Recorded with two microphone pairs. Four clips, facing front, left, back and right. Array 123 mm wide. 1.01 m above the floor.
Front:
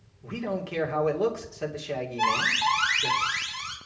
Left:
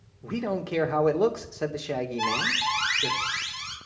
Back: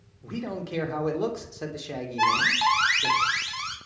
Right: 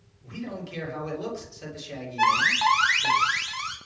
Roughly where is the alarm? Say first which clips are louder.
Right 6 dB, back 3 dB; behind right.